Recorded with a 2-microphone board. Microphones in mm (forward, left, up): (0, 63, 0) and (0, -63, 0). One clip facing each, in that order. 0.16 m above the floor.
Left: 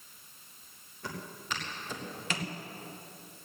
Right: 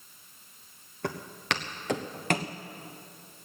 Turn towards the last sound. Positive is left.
turn(degrees=-45)  # may be behind; listen again after turning